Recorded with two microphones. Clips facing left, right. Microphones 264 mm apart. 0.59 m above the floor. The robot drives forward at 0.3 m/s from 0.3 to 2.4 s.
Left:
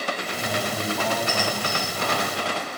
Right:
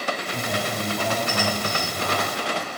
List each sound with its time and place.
0.3 s a man speaking: 20° right (ahead or behind), 5 m